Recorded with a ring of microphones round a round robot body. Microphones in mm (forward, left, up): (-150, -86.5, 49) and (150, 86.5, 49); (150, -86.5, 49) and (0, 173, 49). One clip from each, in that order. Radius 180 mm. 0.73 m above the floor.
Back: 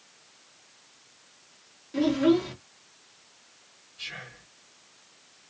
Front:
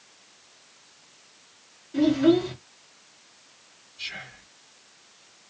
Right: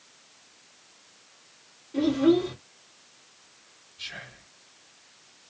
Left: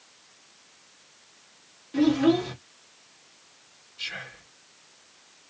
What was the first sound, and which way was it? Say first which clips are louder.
A child speaking: front 3 dB, even; 150° left.